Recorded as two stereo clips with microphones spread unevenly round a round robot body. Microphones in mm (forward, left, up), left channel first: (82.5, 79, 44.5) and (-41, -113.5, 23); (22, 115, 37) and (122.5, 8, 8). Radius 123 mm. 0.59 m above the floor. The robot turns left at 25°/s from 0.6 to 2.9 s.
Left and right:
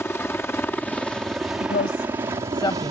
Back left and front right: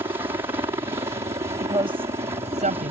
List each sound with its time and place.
0.0 s a helicopter: 20° right; by 2.9 s 80° right
1.6 s a woman speaking: 10° left; by 2.9 s 20° right